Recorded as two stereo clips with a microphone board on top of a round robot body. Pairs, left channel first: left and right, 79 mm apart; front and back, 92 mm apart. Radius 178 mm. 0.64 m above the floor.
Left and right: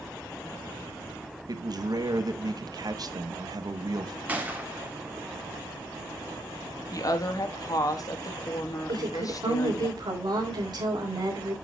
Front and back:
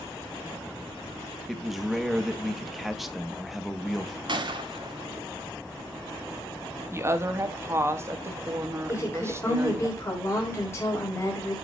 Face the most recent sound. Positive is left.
turn(degrees=-60)